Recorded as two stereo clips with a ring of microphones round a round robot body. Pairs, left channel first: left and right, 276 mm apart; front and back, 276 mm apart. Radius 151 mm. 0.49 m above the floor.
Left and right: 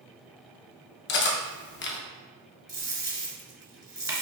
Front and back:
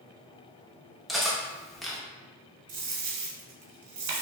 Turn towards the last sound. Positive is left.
turn(degrees=-165)